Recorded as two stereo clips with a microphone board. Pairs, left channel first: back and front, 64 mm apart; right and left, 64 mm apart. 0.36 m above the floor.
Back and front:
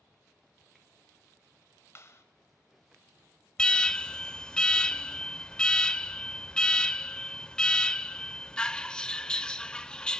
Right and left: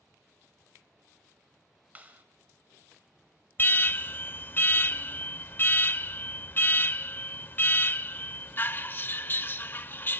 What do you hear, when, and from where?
1.9 s a clap: 145° left, 1.4 m
3.6 s an alarm: 115° right, 0.5 m